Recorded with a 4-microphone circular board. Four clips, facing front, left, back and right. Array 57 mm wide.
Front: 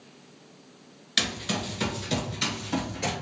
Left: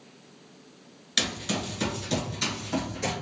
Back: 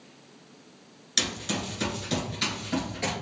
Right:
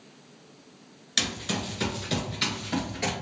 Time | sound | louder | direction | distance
1.2 | running footsteps | left 1 dB, front 2 dB | 10° left | 1.4 m